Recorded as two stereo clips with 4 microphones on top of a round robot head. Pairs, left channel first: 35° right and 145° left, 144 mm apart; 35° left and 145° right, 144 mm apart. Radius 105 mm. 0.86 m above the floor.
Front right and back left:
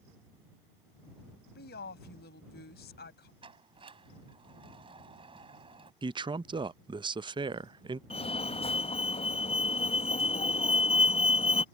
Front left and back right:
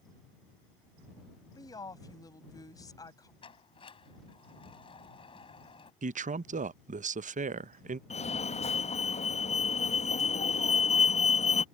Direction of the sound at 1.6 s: 35° right.